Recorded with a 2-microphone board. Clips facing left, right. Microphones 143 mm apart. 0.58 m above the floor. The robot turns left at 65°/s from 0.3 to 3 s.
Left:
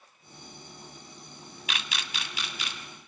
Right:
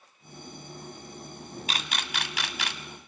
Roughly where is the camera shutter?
Right.